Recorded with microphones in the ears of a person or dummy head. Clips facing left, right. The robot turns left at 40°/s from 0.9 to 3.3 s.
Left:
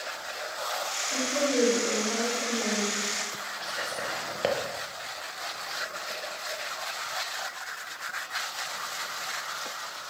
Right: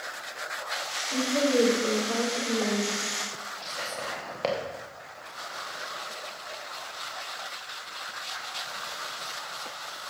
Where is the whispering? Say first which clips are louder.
Left 1 dB; 15° left (ahead or behind), 1.3 m.